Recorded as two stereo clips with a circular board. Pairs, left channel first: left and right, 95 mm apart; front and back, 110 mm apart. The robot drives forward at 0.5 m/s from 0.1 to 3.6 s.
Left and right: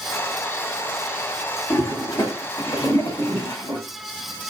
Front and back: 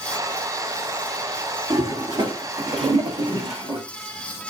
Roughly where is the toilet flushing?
Behind left.